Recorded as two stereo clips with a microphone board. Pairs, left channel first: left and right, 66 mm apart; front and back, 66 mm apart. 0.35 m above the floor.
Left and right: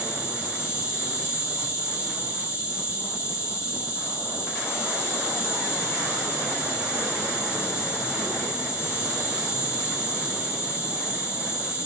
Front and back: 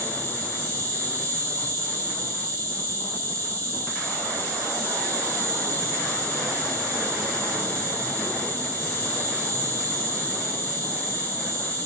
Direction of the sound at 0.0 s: 30° right.